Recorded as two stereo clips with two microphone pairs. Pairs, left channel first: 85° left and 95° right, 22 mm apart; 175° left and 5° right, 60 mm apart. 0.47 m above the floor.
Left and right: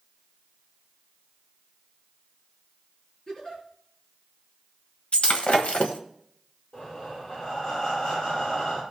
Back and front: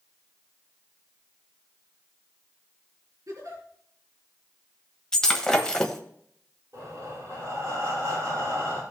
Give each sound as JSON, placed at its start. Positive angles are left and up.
{"t": 3.3, "sound": "a giggle", "azimuth_deg": 20, "distance_m": 5.0}
{"t": 5.1, "sound": "breaking glass", "azimuth_deg": 95, "distance_m": 1.3}
{"t": 6.7, "sound": "breathing", "azimuth_deg": 35, "distance_m": 6.0}